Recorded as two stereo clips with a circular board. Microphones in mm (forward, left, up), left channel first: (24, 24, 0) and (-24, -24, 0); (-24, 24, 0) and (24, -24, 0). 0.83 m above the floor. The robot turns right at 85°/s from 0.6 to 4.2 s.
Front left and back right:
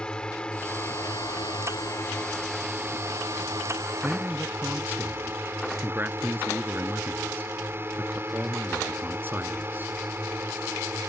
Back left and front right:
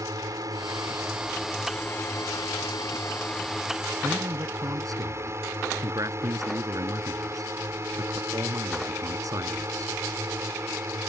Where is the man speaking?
95° right; by 9.9 s 75° right.